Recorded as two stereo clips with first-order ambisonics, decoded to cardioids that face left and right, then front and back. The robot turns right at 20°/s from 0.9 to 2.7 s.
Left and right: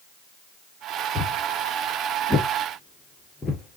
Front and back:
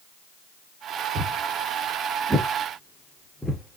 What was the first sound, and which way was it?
Footsteps, 145° left.